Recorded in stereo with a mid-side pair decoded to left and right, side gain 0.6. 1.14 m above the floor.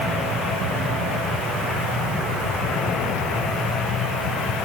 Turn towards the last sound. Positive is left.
No sound to turn to.